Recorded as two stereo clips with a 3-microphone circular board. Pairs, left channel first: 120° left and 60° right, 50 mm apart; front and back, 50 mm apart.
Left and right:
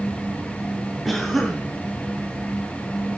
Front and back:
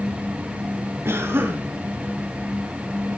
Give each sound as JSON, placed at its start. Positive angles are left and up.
{"t": 1.1, "sound": "a cough", "azimuth_deg": -150, "distance_m": 2.5}